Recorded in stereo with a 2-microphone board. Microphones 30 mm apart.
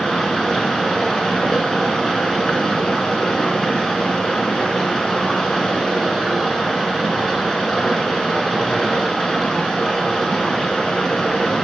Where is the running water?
20° left (ahead or behind), 1.3 m.